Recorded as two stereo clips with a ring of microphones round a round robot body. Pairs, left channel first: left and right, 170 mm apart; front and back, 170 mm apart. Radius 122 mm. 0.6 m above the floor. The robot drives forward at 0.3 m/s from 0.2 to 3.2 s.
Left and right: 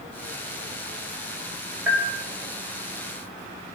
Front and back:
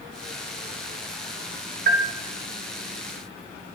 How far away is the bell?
About 2 m.